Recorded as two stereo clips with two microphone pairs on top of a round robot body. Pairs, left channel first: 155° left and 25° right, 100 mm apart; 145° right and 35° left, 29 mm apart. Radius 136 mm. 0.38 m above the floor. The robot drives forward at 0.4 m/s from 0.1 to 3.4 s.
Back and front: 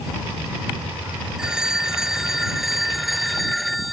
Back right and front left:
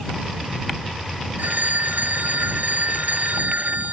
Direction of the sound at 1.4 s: 55° left.